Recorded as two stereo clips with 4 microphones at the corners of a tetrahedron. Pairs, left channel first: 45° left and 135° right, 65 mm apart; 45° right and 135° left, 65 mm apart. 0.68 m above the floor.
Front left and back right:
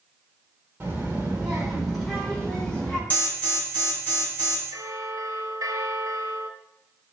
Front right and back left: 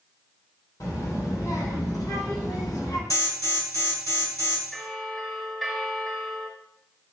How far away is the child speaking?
About 1.7 m.